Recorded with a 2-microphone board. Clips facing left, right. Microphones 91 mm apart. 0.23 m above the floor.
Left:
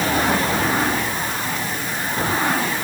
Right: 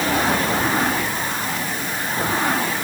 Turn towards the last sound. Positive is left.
No sound to turn to.